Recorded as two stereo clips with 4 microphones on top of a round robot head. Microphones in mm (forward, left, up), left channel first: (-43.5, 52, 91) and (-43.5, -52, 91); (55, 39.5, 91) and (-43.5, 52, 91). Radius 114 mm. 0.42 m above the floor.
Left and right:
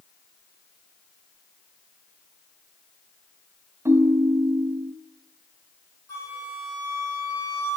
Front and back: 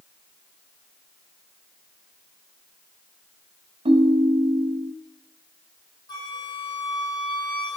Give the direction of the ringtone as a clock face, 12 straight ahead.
5 o'clock.